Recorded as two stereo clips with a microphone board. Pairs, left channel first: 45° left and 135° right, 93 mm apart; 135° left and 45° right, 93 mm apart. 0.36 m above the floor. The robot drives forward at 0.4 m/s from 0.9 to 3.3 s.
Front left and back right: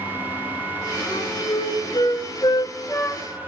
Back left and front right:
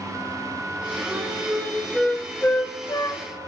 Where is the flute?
30° left, 0.9 m; by 3.2 s 110° left, 0.6 m.